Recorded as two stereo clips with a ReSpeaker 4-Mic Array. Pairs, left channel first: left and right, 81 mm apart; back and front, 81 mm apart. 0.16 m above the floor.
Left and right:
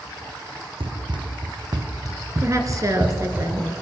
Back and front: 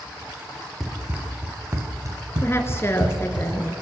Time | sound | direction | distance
0.8 | running footsteps | 85° right | 2 m
2.4 | a woman speaking | 130° right | 2.5 m